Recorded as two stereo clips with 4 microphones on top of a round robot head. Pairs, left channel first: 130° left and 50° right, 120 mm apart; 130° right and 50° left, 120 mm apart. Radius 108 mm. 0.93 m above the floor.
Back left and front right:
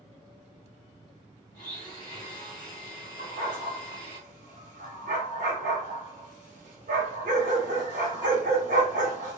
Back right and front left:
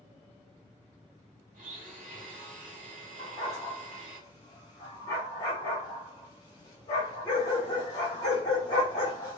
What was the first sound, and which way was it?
A blender, 75° left.